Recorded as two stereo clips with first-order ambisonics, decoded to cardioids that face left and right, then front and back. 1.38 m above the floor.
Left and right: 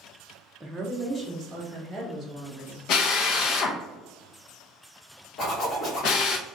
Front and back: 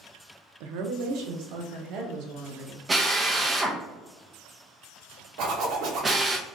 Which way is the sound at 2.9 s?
105° left.